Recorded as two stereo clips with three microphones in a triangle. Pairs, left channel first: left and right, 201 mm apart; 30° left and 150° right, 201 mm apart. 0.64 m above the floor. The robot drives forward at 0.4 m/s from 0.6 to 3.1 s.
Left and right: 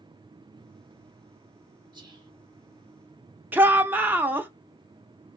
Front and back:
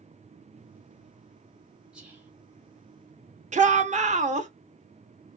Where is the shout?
165° right, 0.7 m.